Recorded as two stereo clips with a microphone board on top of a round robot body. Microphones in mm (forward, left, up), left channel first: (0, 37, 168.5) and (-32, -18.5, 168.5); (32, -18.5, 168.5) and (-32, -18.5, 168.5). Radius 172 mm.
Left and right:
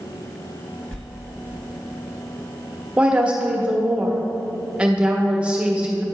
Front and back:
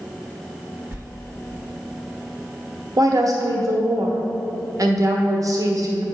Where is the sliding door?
130° left, 1.9 m.